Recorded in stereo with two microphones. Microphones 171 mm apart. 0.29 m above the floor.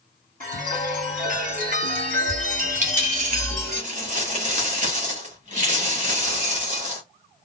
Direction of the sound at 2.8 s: 45° right (ahead or behind).